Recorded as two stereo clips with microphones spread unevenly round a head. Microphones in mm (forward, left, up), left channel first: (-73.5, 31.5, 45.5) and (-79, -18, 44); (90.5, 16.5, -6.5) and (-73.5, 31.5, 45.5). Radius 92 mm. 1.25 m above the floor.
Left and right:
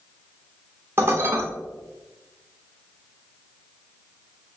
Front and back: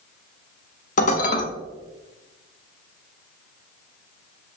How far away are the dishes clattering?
About 0.5 m.